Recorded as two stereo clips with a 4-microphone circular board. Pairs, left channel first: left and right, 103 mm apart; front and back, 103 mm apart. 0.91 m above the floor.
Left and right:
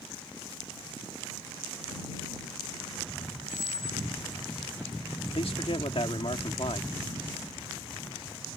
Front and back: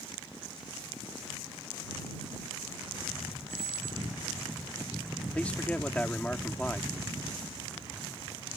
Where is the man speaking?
75° left.